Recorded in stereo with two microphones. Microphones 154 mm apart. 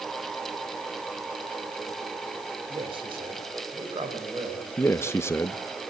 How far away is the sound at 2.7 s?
About 3.5 m.